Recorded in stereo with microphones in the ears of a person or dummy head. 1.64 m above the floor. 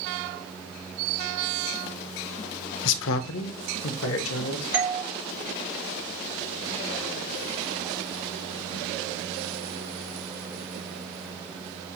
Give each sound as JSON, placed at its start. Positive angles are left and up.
{"t": 2.9, "sound": "a man speaking", "side_deg": 65, "distance_m": 0.5}
{"t": 4.7, "sound": "a doorbell", "side_deg": -5, "distance_m": 0.6}